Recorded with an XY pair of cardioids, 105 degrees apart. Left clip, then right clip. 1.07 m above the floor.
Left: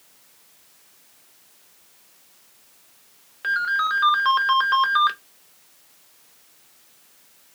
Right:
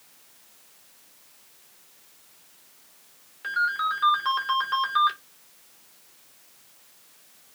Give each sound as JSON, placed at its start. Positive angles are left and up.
{"t": 3.4, "sound": "a ringtone", "azimuth_deg": 45, "distance_m": 0.9}